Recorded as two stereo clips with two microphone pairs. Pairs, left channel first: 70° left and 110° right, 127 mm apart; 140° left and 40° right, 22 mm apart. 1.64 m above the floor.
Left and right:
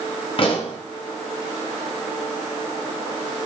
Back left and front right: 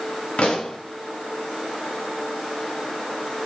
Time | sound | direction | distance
0.4 | a pop | 110° left | 1.7 m